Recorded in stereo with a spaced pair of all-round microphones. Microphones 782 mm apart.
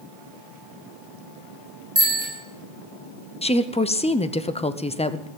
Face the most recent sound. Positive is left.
turn(degrees=10)  # may be behind; listen again after turning